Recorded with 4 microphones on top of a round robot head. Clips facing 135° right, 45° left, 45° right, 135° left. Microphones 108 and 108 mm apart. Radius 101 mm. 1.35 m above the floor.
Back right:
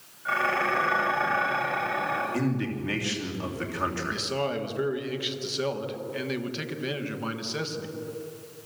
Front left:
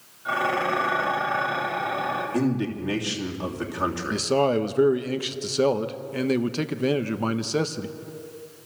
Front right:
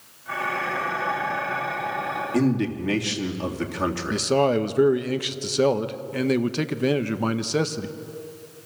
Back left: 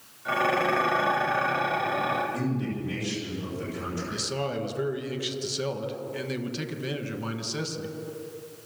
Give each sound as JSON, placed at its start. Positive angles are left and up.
{"t": 0.2, "sound": "dishes clattering", "azimuth_deg": 120, "distance_m": 5.0}
{"t": 2.3, "sound": "a man speaking", "azimuth_deg": -25, "distance_m": 3.0}
{"t": 4.1, "sound": "a man speaking", "azimuth_deg": -5, "distance_m": 1.2}